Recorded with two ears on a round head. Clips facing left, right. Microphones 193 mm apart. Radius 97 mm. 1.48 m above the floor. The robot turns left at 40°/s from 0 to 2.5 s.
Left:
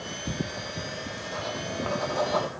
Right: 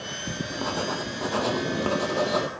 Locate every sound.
0.5 s writing: 75° right; by 2.5 s 155° right